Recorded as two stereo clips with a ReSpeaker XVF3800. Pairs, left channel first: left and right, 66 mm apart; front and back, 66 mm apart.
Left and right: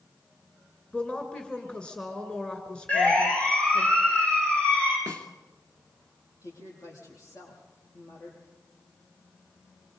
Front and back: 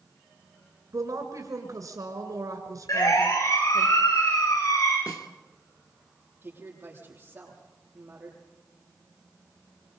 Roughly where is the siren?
Ahead.